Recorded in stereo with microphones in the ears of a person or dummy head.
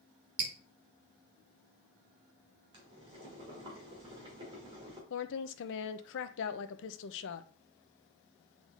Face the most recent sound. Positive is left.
turn(degrees=65)  # may be behind; listen again after turning